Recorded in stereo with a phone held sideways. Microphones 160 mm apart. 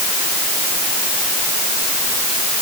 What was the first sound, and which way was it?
Only background noise.